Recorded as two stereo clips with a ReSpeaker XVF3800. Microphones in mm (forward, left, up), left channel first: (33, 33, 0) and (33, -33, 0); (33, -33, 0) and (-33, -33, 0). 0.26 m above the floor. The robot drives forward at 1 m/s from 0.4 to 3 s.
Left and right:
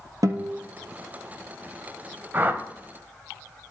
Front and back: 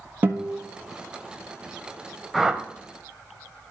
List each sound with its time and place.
0.2 s a guitar: 120° right, 1.2 m; by 0.6 s 125° right, 1.3 m
2.3 s a whoosh: 90° right, 0.6 m; by 2.6 s 135° right, 0.7 m